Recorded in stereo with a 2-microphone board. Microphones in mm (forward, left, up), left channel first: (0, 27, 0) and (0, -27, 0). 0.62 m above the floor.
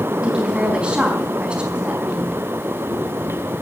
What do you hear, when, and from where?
0.2 s a woman speaking: 20° right (ahead or behind), 4.5 m